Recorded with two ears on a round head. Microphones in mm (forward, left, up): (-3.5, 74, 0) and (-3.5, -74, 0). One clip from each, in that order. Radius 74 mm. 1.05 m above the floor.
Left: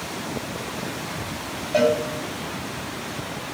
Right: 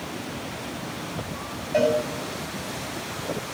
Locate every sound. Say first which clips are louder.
1.7 s a cowbell: left 2 dB; 10° left (ahead or behind), 4.5 m